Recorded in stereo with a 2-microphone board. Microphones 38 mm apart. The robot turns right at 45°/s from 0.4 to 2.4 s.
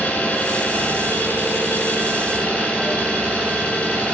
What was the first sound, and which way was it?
An engine running, 55° left.